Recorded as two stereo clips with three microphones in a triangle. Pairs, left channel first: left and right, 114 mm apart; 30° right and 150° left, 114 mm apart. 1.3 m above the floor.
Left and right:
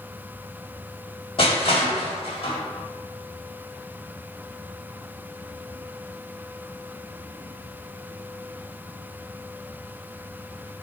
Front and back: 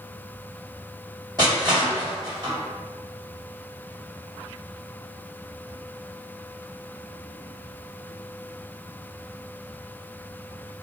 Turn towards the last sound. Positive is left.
turn(degrees=105)